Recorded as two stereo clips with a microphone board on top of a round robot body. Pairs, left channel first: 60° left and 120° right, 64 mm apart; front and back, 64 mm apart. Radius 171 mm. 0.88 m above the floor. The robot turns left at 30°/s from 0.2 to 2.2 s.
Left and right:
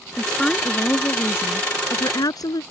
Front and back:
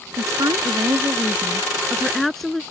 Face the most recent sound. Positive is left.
turn(degrees=85)